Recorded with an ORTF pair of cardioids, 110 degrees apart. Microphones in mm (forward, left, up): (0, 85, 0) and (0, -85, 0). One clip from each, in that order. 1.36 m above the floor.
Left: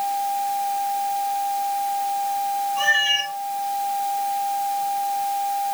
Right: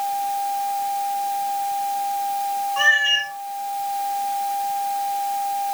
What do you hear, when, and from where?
2.8 s a cat meowing: 60° right, 4.5 m